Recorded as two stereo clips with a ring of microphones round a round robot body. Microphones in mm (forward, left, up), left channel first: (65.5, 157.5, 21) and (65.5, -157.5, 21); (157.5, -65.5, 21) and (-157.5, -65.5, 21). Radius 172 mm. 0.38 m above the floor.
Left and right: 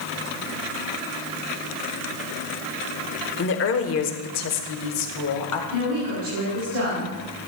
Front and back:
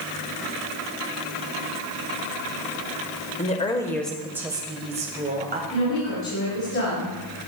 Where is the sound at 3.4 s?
55° left, 1.1 m; by 5.6 s 120° left, 1.8 m.